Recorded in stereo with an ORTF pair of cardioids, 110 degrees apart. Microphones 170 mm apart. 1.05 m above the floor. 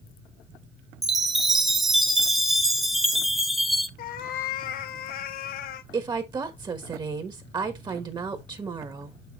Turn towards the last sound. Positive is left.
turn(degrees=-25)